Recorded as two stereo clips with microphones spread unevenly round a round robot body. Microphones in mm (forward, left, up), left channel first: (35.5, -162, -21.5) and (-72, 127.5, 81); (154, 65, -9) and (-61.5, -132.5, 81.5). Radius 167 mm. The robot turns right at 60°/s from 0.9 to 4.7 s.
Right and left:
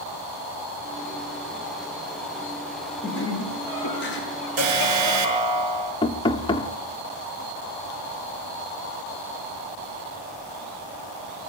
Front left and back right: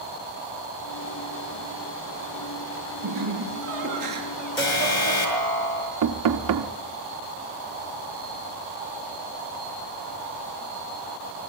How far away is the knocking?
About 1.2 m.